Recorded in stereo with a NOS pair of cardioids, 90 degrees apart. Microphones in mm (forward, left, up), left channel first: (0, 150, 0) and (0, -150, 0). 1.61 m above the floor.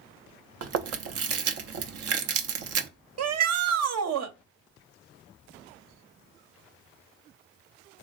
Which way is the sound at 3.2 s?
60° right.